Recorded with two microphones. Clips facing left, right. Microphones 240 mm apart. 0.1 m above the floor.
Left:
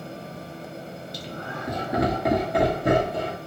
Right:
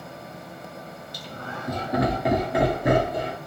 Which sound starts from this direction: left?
Laughter, at 1.1 s.